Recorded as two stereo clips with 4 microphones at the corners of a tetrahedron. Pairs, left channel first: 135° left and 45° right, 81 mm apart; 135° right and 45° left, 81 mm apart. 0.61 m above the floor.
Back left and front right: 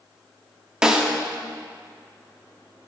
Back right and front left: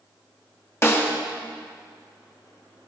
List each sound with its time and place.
0.8 s a snare drum: 115° right, 1.4 m